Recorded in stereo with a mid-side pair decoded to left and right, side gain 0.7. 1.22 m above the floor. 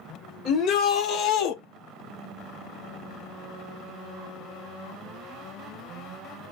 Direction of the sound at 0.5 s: 50° left.